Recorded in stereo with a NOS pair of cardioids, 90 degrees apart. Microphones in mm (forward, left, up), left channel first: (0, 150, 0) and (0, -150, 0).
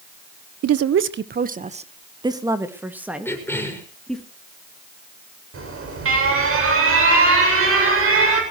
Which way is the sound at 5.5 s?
45° right.